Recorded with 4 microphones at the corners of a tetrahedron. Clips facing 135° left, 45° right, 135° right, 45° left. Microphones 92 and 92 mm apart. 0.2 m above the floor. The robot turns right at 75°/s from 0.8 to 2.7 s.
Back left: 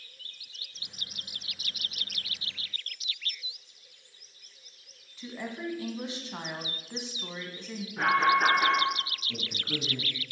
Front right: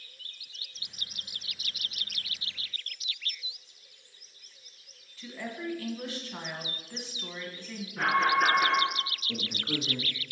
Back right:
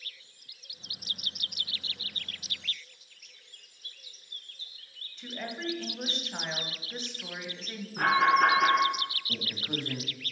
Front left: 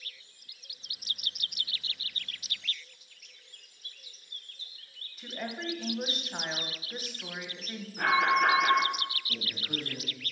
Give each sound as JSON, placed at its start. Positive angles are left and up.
{"t": 5.2, "sound": "a woman speaking", "azimuth_deg": 120, "distance_m": 1.0}
{"t": 8.0, "sound": "an alarm", "azimuth_deg": -150, "distance_m": 3.5}
{"t": 9.3, "sound": "a man speaking", "azimuth_deg": -95, "distance_m": 1.2}